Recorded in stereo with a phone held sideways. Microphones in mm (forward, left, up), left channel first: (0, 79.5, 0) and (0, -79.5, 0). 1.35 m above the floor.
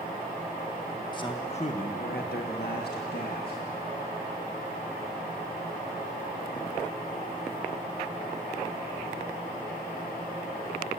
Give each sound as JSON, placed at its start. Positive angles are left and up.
{"t": 1.1, "sound": "a man speaking", "side_deg": 25, "distance_m": 1.7}